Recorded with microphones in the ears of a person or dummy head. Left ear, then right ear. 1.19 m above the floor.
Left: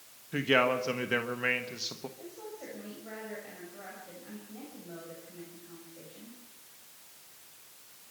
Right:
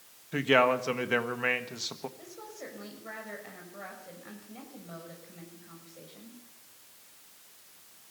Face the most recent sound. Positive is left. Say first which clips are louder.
# even
turn(degrees=-55)  # may be behind; listen again after turning